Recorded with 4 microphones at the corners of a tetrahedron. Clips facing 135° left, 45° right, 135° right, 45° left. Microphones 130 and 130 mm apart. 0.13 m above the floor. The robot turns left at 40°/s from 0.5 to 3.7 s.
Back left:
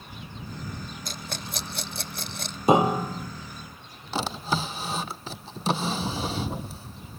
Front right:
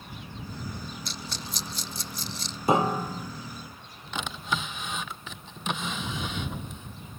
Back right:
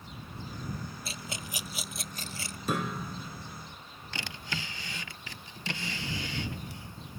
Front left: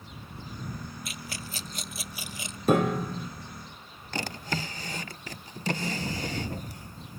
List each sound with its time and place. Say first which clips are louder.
1.1 s a rattle: back left 2 dB, even; 170° left; by 2.6 s 110° left
2.7 s a piano: back left 4 dB, front left 9 dB; 70° left; by 3.3 s 45° left
4.1 s a drawer: back left 4 dB, front left 7 dB; 85° left